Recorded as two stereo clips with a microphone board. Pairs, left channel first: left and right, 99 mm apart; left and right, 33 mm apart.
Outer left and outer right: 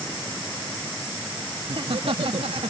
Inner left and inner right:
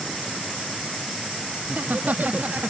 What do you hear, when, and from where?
1.6 s laughter: 60° right (ahead or behind); by 2.7 s 70° right (ahead or behind)